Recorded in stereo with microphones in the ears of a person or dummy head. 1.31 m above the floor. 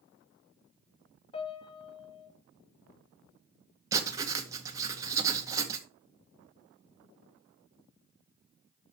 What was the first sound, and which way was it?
A piano, 30° left (ahead or behind).